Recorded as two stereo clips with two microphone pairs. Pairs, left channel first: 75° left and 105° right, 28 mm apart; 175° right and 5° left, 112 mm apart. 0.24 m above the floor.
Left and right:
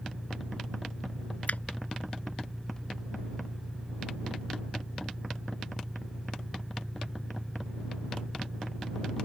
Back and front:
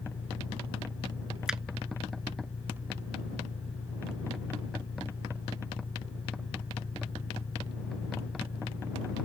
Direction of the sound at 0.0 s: 165° left.